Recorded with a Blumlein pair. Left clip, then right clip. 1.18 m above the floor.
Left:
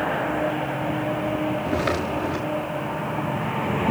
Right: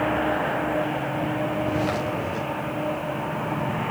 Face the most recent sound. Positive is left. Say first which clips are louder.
# left 1 dB
turn(degrees=65)